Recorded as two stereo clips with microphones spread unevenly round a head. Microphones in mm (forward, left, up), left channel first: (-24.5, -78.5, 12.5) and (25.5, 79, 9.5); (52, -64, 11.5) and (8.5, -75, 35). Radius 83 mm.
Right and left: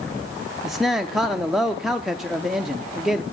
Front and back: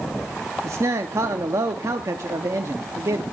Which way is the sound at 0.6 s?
160° left.